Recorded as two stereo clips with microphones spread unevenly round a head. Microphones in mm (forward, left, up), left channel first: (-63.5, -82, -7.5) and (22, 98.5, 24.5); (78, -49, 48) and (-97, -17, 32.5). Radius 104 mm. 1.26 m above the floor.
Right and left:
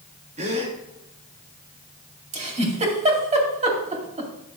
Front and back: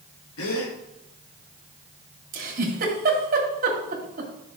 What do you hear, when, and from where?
0.4 s a gasp: 5° left, 1.7 m
2.3 s a giggle: 120° left, 2.5 m